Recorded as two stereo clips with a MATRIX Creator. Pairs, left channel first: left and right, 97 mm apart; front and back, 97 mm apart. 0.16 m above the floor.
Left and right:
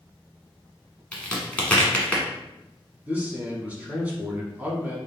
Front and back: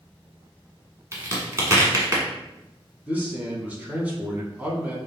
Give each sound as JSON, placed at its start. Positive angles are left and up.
{"t": 1.1, "sound": "a crack", "azimuth_deg": 155, "distance_m": 1.2}
{"t": 3.1, "sound": "a man speaking", "azimuth_deg": -135, "distance_m": 1.0}